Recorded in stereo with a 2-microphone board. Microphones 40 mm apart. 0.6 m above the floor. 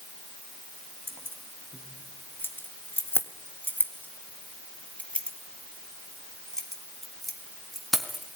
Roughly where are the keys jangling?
Left.